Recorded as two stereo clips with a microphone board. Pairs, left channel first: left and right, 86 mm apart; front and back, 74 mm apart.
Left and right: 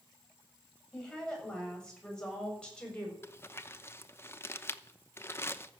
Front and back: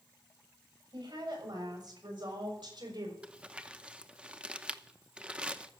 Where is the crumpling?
120° left, 0.7 m.